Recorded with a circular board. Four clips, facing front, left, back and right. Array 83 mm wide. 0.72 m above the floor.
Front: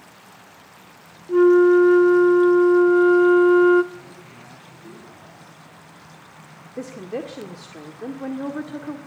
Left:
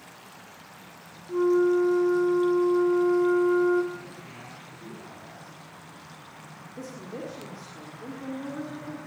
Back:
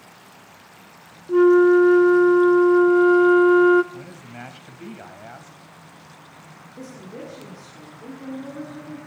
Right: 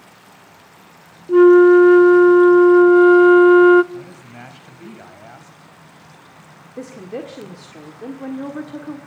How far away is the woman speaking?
About 1.8 m.